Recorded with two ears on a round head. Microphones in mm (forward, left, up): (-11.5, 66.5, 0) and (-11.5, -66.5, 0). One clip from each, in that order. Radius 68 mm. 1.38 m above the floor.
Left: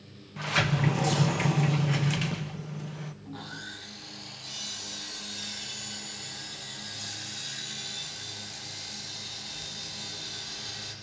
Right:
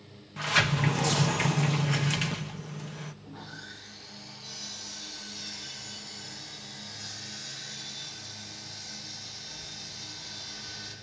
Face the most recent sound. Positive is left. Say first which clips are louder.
# left 3 dB
turn(degrees=50)  # may be behind; listen again after turning